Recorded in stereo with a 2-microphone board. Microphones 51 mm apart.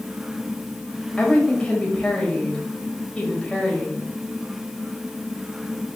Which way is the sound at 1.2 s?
20° left (ahead or behind).